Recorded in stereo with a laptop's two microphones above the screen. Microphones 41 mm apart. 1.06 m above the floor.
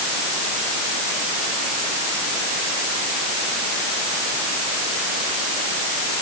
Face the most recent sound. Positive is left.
No sound to turn to.